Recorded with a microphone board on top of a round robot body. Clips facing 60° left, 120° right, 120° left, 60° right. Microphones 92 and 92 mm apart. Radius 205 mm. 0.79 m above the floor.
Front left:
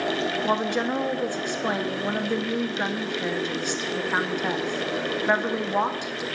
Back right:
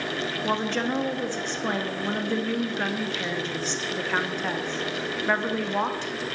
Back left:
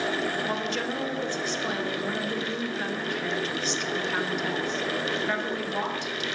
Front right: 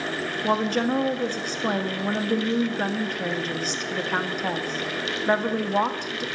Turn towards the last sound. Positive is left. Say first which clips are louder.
# even, front right 6 dB
turn(degrees=-15)